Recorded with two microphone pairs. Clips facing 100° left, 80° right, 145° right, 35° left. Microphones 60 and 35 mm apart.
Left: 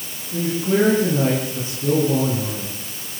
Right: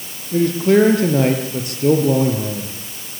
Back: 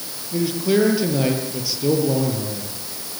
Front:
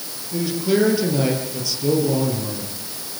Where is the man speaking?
70° right, 6.5 m.